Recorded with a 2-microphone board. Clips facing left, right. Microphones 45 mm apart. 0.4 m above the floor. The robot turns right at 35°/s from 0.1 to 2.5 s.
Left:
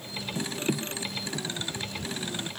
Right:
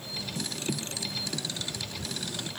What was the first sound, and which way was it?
Only background noise.